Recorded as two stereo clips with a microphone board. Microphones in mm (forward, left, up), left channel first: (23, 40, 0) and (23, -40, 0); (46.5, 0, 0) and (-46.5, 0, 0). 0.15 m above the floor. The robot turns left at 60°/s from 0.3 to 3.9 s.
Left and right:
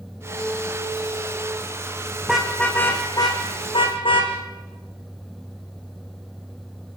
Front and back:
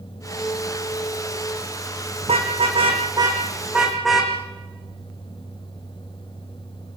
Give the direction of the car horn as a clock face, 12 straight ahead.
6 o'clock.